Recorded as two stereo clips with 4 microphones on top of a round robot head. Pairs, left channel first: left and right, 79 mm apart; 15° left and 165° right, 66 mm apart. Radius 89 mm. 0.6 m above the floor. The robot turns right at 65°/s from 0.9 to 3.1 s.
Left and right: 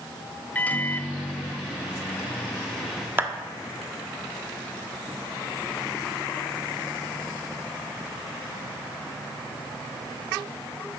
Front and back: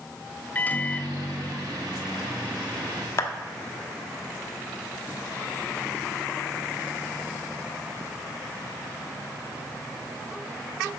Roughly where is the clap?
Ahead right.